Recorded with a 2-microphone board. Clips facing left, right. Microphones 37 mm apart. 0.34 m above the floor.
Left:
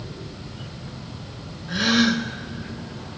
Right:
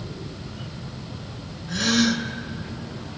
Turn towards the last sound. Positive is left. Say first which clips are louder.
# left 2 dB
turn(degrees=20)  # may be behind; listen again after turning